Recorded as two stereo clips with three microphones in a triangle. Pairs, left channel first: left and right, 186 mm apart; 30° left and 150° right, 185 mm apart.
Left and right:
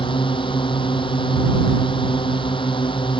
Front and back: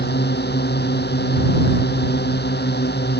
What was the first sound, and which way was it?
A drone, 30° left.